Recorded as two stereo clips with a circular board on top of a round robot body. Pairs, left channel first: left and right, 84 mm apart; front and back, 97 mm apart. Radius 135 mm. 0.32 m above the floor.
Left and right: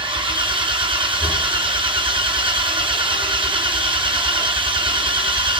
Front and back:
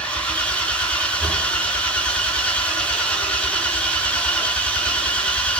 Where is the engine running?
75° right, 4.5 m.